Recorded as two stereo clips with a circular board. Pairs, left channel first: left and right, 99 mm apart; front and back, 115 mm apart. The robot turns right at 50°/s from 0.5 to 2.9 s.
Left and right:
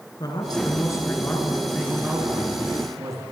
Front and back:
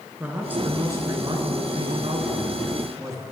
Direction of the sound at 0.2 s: 110° left.